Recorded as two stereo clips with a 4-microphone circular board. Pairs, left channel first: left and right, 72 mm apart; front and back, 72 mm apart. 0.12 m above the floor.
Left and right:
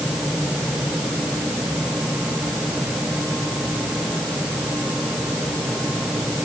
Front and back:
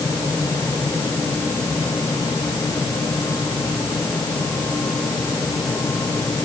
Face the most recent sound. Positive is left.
No sound to turn to.